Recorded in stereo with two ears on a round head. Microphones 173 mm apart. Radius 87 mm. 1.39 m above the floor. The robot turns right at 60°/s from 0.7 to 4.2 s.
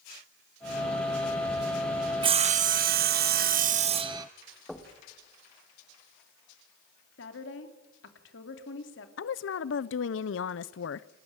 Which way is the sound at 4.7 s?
Centre (ahead or behind).